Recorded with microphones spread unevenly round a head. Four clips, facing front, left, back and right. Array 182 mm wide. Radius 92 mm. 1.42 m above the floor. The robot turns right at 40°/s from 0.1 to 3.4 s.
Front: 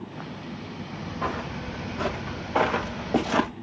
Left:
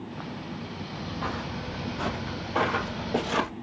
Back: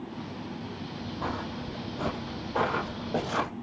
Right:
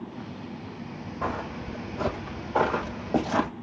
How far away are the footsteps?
About 1.7 m.